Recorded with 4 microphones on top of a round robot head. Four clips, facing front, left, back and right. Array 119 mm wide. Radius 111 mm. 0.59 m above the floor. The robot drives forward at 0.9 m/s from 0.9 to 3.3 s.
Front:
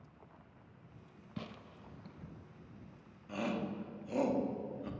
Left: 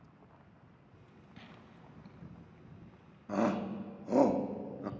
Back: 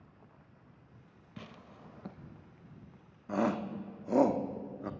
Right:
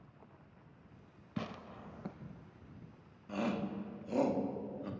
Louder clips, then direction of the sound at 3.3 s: Left 5 dB, back 6 dB; 140° left.